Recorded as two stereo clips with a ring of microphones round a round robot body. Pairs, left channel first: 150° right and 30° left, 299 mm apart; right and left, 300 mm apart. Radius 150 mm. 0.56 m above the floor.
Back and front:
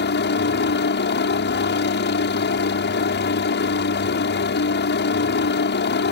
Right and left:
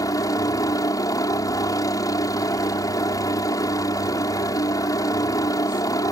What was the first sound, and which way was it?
A helicopter, 160° right.